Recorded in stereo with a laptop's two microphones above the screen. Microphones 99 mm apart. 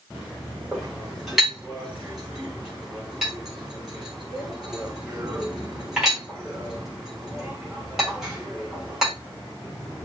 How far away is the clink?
About 1.3 m.